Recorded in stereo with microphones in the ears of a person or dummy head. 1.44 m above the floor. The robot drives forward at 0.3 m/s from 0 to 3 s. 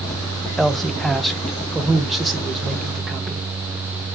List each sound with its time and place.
0.6 s a man speaking: centre (ahead or behind), 0.7 m